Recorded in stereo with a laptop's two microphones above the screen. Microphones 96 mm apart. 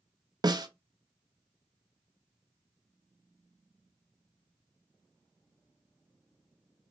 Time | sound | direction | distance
0.4 | a snare drum | 45° right (ahead or behind) | 0.6 m